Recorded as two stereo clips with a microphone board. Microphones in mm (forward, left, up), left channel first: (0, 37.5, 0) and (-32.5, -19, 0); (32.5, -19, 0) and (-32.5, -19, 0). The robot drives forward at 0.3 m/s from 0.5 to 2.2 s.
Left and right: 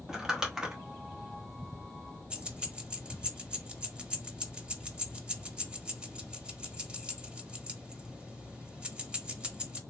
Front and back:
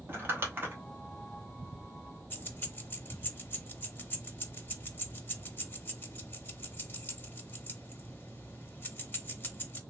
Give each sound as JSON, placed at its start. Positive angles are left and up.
{"t": 0.1, "sound": "crumpling", "azimuth_deg": 165, "distance_m": 0.9}
{"t": 2.3, "sound": "keys jangling", "azimuth_deg": -50, "distance_m": 0.6}